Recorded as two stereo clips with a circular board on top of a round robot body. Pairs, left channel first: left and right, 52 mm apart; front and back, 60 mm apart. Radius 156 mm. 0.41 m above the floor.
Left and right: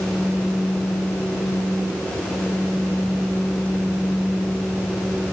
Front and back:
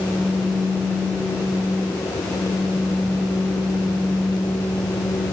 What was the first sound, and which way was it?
Only background noise.